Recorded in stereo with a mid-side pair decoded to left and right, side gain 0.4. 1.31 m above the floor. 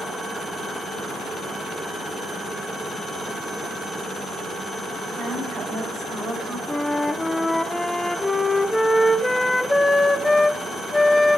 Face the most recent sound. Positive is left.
turn(degrees=10)